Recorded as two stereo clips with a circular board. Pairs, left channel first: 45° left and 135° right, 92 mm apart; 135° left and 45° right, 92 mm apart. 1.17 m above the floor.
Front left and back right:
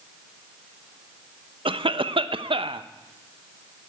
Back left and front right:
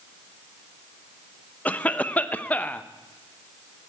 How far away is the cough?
About 0.8 m.